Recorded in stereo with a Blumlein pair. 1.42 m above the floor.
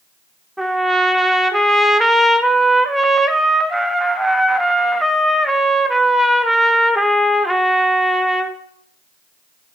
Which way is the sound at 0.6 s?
Straight ahead.